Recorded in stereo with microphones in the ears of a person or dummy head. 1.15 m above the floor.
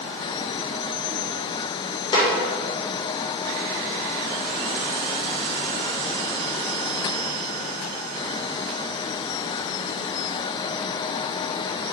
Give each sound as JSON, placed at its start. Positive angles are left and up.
{"t": 2.1, "sound": "a snare drum", "side_deg": 25, "distance_m": 1.1}